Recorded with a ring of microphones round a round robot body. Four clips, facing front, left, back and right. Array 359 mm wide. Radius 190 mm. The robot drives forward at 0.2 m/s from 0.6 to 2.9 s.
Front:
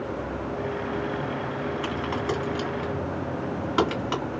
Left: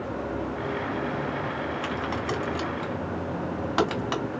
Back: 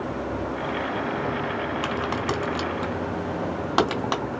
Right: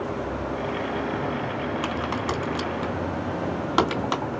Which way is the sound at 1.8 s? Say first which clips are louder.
Right 2 dB, back 2 dB; 150° right.